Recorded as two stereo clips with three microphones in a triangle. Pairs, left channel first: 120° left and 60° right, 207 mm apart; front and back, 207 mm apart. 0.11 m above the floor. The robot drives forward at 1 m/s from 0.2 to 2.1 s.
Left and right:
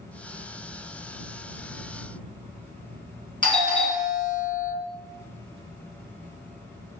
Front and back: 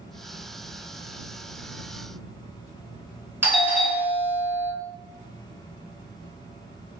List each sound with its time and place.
3.4 s a doorbell: 115° left, 1.6 m